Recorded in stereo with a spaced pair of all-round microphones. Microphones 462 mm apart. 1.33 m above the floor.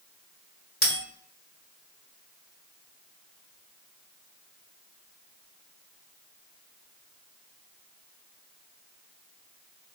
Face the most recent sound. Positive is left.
turn(degrees=20)  # may be behind; listen again after turning